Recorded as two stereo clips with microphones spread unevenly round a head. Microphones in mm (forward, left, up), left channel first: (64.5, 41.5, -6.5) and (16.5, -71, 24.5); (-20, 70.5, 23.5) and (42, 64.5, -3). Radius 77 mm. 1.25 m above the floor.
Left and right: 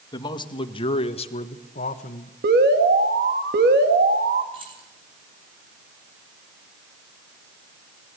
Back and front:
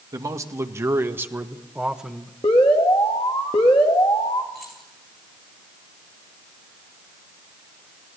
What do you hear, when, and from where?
0.1 s a man speaking: 15° left, 2.5 m; by 2.3 s 75° left, 1.6 m
2.4 s an alarm: 135° right, 2 m
4.5 s keys jangling: 70° right, 9.5 m